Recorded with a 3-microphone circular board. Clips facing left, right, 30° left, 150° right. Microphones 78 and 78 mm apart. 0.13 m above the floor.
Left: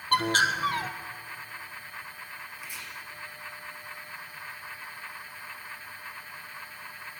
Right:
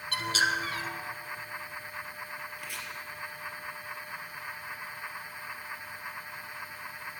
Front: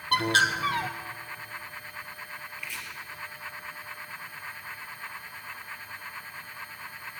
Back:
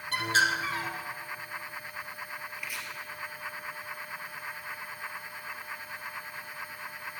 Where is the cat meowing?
No cat meowing in this recording.